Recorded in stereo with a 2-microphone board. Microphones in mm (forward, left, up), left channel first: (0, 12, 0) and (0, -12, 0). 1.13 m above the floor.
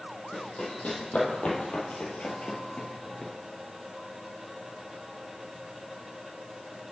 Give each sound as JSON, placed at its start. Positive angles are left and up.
{"t": 0.3, "sound": "running footsteps", "side_deg": 65, "distance_m": 3.0}